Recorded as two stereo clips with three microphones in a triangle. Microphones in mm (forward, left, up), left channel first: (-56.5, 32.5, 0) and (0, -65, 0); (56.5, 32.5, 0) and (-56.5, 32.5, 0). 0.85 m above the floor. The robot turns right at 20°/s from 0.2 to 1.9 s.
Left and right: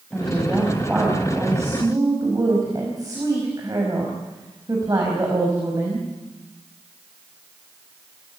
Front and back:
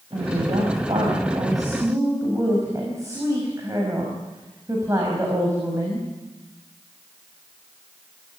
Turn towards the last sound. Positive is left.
turn(degrees=-115)